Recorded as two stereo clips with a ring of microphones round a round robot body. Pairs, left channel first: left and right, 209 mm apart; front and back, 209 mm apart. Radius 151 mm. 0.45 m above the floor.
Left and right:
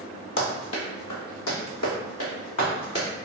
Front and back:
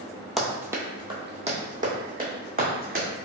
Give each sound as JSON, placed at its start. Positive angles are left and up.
{"t": 0.4, "sound": "running footsteps", "azimuth_deg": 90, "distance_m": 0.8}